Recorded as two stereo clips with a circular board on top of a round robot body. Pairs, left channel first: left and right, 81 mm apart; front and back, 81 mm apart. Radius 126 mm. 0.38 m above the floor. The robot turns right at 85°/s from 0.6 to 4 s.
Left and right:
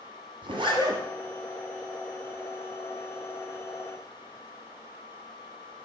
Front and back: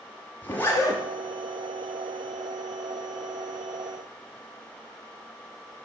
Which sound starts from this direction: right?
A zipper, at 0.4 s.